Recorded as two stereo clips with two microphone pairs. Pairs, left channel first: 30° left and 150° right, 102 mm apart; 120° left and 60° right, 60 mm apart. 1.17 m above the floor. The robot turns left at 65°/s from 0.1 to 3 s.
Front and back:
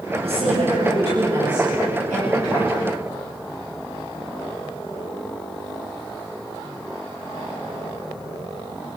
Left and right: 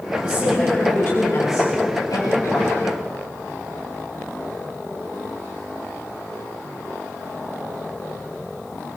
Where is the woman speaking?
115° right, 7.5 m; by 2.9 s 70° left, 7.5 m.